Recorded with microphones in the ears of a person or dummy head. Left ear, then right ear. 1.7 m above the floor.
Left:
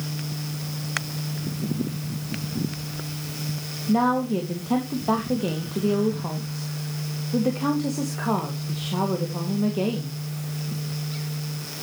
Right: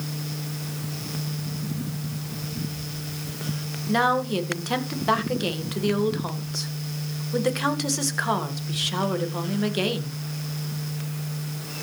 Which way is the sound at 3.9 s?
85° right.